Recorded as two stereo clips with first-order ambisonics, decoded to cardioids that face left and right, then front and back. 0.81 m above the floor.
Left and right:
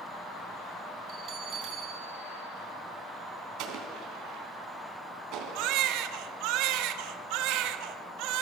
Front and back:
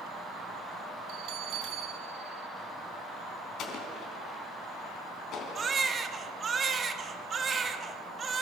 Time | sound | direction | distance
1.1 | a bell | 145° right | 4.5 m
3.6 | an explosion | 50° right | 3 m
5.5 | a baby crying | 110° right | 1.2 m